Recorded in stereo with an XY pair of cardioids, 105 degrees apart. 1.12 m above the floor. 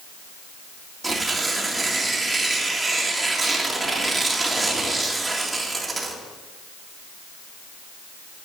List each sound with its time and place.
1.0 s tearing paper: 25° right, 1.8 m